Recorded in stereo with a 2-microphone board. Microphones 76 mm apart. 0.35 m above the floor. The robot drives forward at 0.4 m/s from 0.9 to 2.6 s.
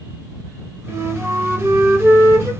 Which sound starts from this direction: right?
A flute, at 0.9 s.